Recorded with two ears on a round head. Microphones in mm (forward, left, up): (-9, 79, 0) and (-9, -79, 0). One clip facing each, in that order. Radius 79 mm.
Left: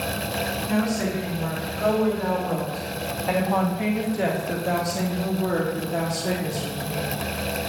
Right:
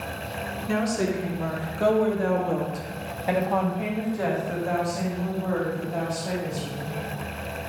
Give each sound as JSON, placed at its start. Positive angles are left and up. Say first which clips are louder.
{"t": 0.7, "sound": "a woman speaking", "louder": "even", "side_deg": -55, "distance_m": 2.0}